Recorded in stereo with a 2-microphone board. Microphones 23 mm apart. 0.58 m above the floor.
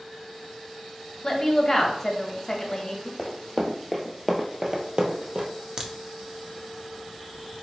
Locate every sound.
1.2 s a woman speaking: 25° left (ahead or behind), 0.9 m
3.2 s running footsteps: 15° left (ahead or behind), 1.0 m; by 5.5 s 60° right (ahead or behind), 1.0 m
5.8 s a crack: 30° right (ahead or behind), 0.5 m